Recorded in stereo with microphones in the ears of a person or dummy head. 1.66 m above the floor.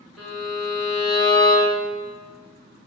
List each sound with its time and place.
0.2 s a violin: centre (ahead or behind), 1.2 m